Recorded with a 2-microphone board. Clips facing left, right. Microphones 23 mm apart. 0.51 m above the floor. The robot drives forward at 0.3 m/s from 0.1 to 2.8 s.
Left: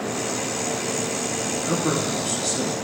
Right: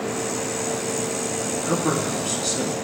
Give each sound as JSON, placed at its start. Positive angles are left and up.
{"t": 1.6, "sound": "a man speaking", "side_deg": -15, "distance_m": 4.5}